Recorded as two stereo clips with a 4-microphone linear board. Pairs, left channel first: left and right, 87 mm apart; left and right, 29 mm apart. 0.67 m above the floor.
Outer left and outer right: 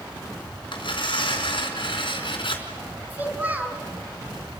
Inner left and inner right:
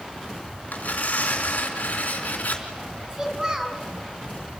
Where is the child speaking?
20° right (ahead or behind), 3 m.